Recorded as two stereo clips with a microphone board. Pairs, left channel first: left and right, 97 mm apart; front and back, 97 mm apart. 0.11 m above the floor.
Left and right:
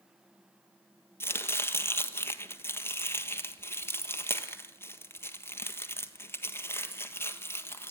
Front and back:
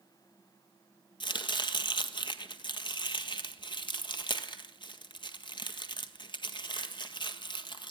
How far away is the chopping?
About 1.4 m.